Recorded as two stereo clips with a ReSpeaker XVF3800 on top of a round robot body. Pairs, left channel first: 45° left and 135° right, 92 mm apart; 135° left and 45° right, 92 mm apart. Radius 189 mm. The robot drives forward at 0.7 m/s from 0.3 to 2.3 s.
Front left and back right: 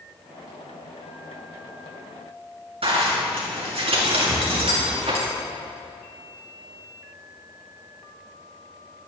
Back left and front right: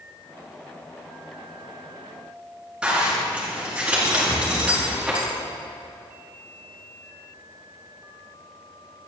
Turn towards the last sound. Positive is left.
turn(degrees=175)